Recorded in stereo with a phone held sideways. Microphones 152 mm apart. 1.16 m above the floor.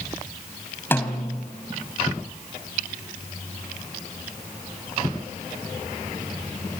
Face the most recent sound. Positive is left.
turn(degrees=15)  # may be behind; listen again after turning